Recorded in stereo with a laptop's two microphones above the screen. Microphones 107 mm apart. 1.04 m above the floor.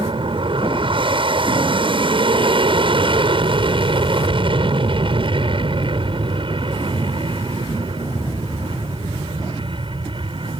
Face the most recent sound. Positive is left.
turn(degrees=-55)  # may be behind; listen again after turning